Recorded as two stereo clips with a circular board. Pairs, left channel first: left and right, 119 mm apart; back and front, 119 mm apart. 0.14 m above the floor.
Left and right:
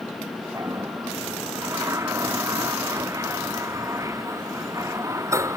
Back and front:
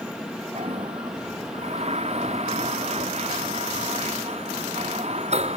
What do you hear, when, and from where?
0.6 s a toilet flushing: 25° right